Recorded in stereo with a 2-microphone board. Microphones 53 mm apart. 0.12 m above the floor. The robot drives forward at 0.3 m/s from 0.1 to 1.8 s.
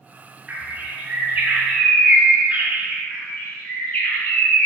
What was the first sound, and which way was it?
A bird, 30° right (ahead or behind).